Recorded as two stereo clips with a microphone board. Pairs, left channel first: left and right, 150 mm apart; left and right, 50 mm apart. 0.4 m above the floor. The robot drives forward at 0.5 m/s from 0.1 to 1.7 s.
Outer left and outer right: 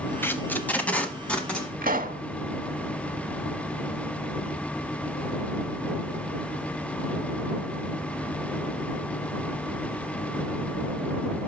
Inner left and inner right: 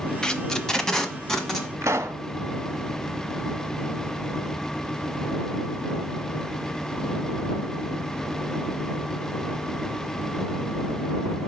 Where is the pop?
70° right (ahead or behind), 0.8 m.